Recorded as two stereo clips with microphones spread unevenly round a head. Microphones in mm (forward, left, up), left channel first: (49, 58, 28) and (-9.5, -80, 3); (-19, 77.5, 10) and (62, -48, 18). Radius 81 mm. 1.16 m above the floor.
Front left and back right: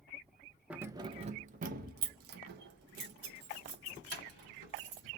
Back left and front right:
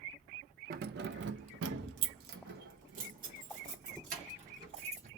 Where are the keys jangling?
30° right, 0.5 m; by 5.1 s 110° right, 2.5 m.